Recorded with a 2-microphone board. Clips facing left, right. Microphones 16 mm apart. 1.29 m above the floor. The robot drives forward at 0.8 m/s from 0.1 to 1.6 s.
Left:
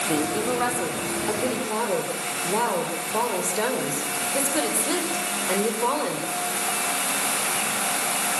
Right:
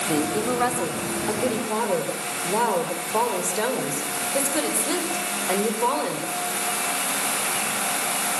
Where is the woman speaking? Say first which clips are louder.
Right 2 dB; 10° right (ahead or behind), 3.5 m; by 6.2 s 5° right (ahead or behind), 4.5 m.